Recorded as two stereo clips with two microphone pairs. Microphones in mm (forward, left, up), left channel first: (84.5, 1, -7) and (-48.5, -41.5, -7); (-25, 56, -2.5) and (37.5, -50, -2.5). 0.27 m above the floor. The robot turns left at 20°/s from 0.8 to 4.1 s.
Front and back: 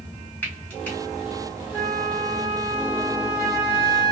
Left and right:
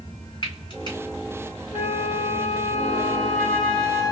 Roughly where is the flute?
Left.